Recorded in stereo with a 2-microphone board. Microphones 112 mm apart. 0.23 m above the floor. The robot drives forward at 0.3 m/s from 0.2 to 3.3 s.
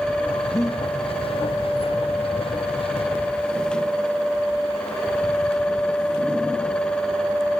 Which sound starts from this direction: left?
Breathing, at 0.5 s.